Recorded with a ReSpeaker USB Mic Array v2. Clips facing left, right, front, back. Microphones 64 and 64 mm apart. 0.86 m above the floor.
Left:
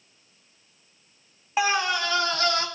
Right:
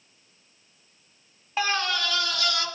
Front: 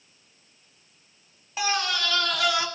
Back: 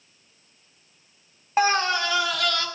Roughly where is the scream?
Behind.